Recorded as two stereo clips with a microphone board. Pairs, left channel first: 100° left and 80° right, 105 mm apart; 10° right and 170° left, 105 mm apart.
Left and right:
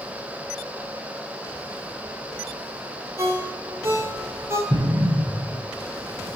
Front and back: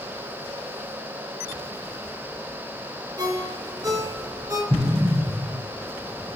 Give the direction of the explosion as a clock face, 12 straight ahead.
4 o'clock.